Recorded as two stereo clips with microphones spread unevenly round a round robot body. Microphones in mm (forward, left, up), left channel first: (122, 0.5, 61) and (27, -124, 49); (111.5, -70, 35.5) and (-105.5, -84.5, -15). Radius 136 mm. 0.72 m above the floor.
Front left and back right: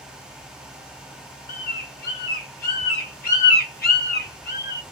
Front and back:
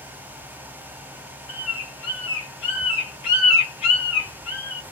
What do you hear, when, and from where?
1.5 s a bird: 30° left, 1.3 m